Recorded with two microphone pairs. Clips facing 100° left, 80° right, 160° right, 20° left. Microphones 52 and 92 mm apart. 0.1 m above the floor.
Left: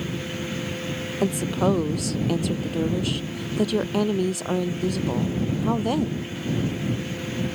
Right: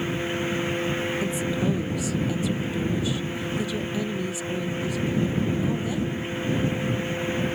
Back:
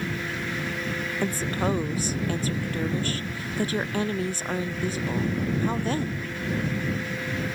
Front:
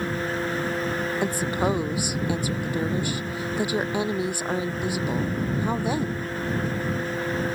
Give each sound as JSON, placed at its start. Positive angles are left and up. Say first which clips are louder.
{"t": 1.2, "sound": "a woman speaking", "louder": "left 3 dB, front 1 dB", "azimuth_deg": 95}